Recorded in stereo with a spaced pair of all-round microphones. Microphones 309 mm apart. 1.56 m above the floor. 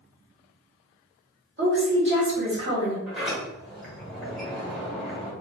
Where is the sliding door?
Centre (ahead or behind), 1.4 m.